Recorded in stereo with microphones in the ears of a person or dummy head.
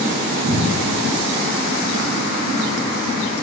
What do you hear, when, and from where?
0.5 s a cupboard door: 10° right (ahead or behind), 2.5 m